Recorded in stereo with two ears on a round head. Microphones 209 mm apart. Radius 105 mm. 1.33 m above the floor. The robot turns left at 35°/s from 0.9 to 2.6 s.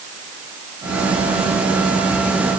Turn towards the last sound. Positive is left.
No sound to turn to.